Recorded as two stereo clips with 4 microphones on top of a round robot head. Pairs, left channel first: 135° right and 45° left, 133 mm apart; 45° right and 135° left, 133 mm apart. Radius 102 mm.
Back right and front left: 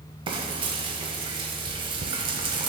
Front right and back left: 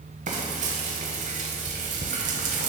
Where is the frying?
100° left, 0.7 m.